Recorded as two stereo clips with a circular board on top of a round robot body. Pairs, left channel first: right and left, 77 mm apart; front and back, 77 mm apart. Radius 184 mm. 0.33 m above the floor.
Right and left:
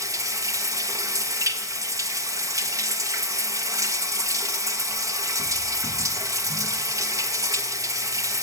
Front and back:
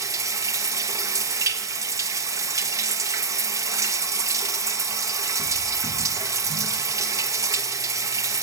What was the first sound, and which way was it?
Running water, 135° left.